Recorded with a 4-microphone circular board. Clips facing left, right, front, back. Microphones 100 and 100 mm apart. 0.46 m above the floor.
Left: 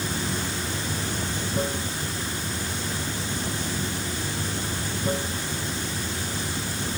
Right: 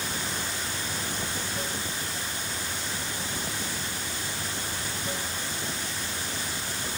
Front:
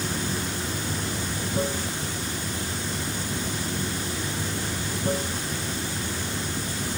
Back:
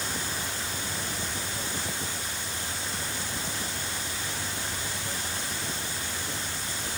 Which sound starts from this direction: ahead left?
Running water, at 0.0 s.